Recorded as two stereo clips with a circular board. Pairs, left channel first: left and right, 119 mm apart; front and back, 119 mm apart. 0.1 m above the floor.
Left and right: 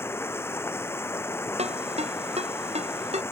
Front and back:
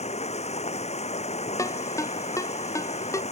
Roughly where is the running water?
Ahead.